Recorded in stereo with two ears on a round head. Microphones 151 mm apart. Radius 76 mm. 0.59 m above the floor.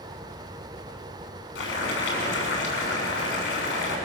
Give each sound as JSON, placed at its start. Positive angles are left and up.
{"t": 1.6, "sound": "boiling", "side_deg": 80, "distance_m": 6.5}